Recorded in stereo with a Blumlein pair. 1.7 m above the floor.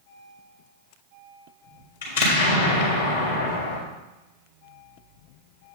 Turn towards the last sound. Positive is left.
turn(degrees=60)